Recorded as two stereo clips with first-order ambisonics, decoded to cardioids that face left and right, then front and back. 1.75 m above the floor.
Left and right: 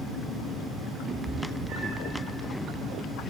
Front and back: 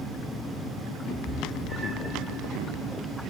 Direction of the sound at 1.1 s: 50° right.